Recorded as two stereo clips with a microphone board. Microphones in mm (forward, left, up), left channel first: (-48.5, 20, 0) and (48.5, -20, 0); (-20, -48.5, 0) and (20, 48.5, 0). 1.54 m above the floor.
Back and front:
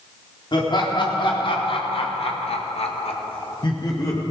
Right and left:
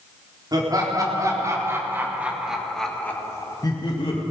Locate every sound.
0.5 s laughter: 115° left, 3.5 m; by 4.2 s 145° right, 2 m